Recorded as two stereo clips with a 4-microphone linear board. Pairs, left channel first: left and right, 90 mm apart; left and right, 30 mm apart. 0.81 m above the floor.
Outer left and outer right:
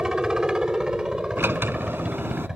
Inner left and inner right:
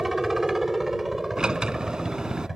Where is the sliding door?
25° right (ahead or behind).